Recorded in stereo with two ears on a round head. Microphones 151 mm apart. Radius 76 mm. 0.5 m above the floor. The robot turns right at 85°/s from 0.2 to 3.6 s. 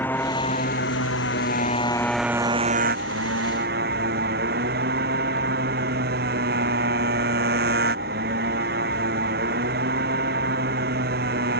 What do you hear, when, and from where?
0.0 s a motorcycle: 10° left; by 11.6 s 60° right